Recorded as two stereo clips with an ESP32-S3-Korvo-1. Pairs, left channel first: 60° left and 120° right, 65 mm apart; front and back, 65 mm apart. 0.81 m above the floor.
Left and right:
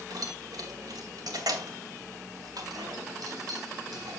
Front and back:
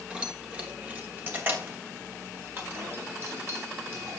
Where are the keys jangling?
105° right, 2 m; by 4.2 s 135° right, 4.5 m.